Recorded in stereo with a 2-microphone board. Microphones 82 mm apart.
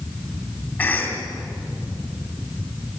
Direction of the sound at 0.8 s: 20° left (ahead or behind).